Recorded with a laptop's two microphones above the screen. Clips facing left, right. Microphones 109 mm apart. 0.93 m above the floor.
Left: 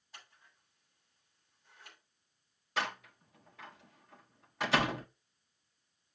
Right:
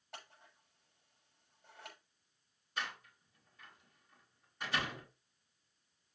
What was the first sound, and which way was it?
Scissors, 65° right (ahead or behind).